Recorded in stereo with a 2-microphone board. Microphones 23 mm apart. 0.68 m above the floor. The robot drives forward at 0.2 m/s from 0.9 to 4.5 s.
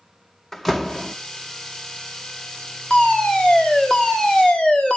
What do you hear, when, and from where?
0.5 s a door slam: 15° left (ahead or behind), 1.0 m; by 1.1 s 10° left (ahead or behind), 1.0 m
2.9 s a fire alarm: 50° left (ahead or behind), 2.5 m